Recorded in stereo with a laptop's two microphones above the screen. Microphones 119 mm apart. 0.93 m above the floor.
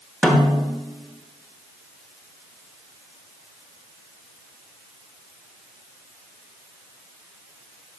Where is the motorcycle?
I don't hear a motorcycle.